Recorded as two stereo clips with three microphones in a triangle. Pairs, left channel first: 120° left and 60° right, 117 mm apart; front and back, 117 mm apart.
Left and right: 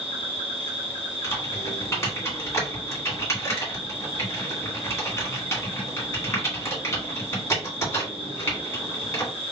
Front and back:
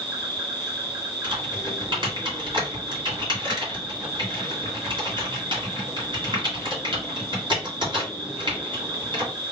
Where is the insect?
140° left, 1.9 m.